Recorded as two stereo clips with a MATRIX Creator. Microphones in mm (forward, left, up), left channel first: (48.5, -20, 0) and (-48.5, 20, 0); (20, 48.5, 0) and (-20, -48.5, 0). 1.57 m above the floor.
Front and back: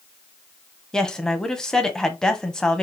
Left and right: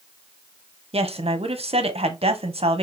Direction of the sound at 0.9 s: 105° right.